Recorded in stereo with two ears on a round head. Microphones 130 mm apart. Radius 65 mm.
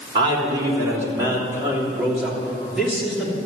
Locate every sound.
0.1 s a man speaking: 30° right (ahead or behind), 3 m; by 3.4 s 5° left (ahead or behind), 3 m